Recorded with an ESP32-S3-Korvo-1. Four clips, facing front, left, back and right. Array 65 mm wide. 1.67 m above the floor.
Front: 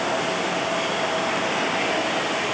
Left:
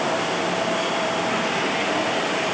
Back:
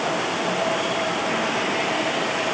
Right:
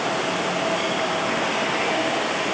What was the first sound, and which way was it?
Only background noise.